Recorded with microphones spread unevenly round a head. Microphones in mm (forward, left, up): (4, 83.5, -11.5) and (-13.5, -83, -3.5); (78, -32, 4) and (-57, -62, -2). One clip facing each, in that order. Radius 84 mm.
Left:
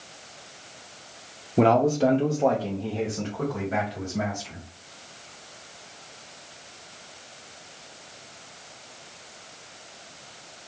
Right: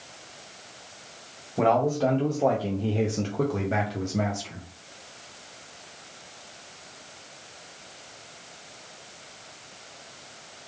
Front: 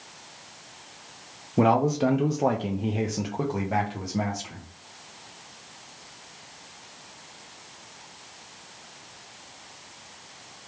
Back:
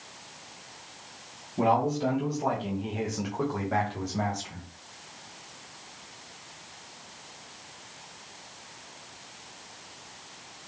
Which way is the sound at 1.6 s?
40° left.